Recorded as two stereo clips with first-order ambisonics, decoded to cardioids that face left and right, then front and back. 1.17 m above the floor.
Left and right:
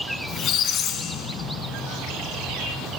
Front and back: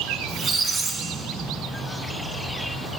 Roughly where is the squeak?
Left.